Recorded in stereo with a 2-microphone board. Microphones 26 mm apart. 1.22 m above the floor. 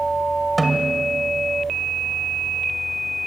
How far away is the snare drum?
About 1.8 m.